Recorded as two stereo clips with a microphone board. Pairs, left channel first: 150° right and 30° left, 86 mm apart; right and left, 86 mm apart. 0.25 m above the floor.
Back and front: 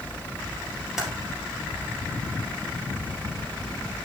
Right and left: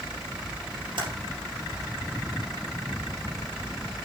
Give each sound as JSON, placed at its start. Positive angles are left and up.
{"t": 1.0, "sound": "typing on a keyboard", "azimuth_deg": 115, "distance_m": 2.5}